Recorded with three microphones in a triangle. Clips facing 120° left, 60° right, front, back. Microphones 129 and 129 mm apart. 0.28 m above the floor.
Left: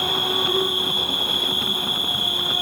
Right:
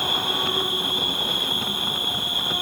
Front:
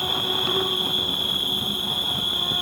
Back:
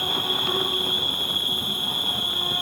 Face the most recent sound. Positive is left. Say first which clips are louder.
# left 2 dB, front 1 dB
turn(degrees=85)